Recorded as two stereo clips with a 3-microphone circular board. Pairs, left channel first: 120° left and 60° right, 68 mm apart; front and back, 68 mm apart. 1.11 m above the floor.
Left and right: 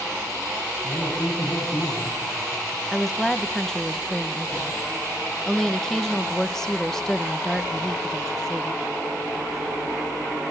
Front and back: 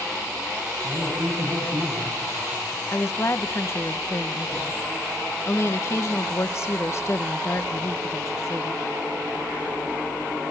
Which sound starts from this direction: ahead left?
A woman speaking, at 2.9 s.